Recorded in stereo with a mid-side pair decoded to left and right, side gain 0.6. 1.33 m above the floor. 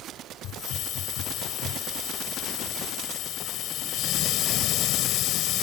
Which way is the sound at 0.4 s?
65° left.